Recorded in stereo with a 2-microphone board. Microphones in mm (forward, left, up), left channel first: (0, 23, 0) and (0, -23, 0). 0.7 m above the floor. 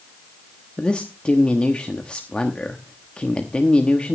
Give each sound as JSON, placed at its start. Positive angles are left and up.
{"t": 0.8, "sound": "a man speaking", "side_deg": 25, "distance_m": 1.0}